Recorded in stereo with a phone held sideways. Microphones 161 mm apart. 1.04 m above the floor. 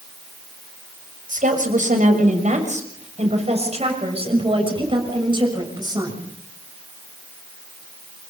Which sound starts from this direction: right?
A woman speaking, at 1.3 s.